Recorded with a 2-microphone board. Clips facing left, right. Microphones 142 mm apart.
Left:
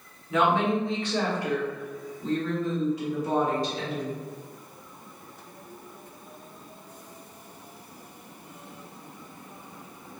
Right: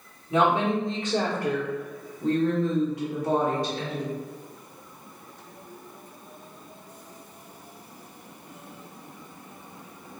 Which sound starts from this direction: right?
A woman speaking, at 0.3 s.